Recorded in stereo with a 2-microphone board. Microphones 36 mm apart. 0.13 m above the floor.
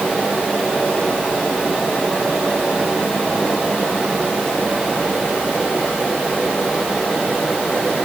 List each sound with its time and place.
Only background noise.